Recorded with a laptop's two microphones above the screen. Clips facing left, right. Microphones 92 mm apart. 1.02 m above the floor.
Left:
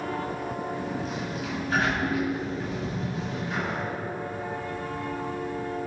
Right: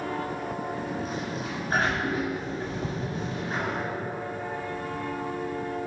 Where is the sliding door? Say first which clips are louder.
Even; 35° right (ahead or behind), 4 m.